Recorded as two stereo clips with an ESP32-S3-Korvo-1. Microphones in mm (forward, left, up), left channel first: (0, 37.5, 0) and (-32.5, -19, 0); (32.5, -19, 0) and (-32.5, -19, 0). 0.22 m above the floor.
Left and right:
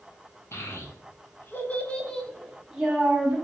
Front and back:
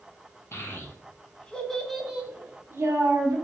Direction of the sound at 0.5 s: 35° left.